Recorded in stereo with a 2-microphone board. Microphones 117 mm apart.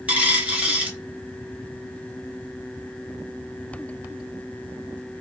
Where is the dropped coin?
10° right (ahead or behind), 1.1 m.